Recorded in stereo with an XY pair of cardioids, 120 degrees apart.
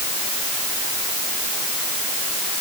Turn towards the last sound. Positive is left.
No sound to turn to.